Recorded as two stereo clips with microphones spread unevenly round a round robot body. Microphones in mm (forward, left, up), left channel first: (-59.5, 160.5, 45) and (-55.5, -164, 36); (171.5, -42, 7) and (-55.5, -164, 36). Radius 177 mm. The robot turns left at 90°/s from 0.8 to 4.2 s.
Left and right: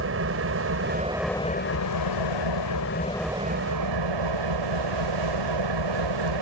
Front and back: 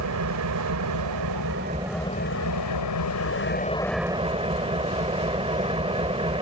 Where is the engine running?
140° right; by 6.4 s 85° right.